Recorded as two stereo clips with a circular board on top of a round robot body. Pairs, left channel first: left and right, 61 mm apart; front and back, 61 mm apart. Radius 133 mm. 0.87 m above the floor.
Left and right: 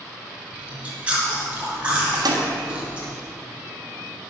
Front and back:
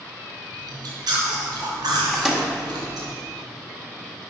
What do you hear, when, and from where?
0.5 s chewing: 165° right, 2.5 m
2.1 s a microwave: 95° right, 1.7 m